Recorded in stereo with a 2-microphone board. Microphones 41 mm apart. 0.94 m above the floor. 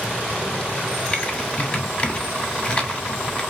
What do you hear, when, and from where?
1.1 s typing on a keyboard: 30° left (ahead or behind), 0.6 m